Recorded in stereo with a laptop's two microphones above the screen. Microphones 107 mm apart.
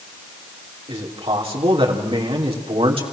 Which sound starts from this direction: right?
A man speaking, at 0.9 s.